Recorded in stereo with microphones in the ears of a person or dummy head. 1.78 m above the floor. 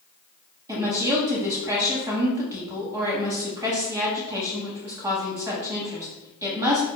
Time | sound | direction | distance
0.7 | a woman speaking | 15° right (ahead or behind) | 0.8 m